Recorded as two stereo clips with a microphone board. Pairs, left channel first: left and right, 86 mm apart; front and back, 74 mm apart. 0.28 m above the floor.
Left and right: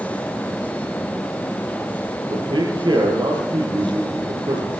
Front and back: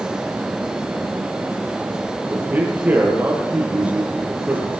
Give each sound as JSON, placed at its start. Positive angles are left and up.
{"t": 2.3, "sound": "a man speaking", "azimuth_deg": -115, "distance_m": 6.0}